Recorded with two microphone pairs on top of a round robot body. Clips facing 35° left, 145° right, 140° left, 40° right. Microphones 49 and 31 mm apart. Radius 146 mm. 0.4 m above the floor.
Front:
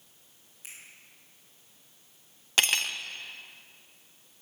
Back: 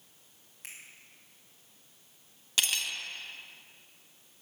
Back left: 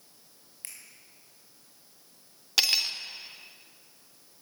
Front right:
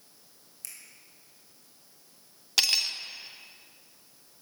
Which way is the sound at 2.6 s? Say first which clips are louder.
Front 5 dB, even; 65° left.